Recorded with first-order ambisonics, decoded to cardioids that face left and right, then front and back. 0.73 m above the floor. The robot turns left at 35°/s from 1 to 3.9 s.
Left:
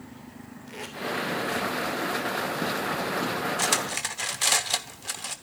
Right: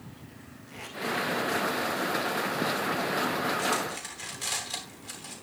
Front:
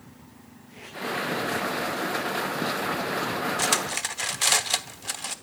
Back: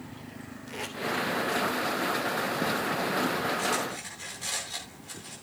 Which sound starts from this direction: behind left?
Tape being pulled, at 0.7 s.